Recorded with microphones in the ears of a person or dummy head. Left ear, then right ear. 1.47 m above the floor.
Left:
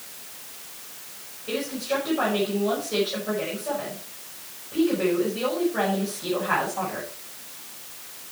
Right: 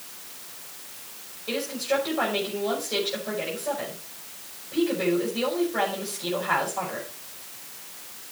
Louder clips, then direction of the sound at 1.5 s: Right 1 dB; 25° right (ahead or behind).